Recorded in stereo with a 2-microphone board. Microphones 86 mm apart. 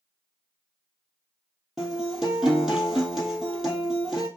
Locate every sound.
1.8 s a guitar: 5° right (ahead or behind), 2 m